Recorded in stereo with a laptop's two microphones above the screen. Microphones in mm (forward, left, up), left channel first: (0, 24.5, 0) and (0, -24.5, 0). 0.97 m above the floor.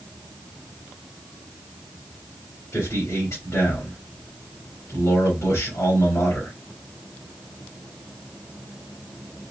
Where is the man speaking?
75° left (ahead or behind), 2.5 m.